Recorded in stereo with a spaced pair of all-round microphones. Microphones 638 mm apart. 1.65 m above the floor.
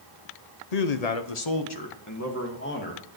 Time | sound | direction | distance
0.7 | a man speaking | 80° left | 1.0 m